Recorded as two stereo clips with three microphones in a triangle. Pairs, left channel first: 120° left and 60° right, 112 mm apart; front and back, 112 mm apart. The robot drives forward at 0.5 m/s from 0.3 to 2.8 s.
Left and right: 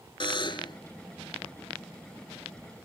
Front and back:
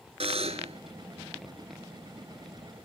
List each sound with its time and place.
0.2 s a buzzer: 160° left; by 0.8 s 165° left